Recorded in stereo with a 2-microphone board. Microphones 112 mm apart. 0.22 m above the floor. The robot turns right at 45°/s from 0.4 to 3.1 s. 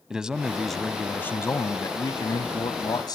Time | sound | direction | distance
0.1 | a man speaking | 10° right | 1.1 m